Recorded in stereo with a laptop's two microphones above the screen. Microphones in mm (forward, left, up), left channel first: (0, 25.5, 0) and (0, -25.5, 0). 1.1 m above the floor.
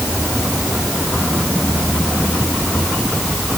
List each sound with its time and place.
Only background noise.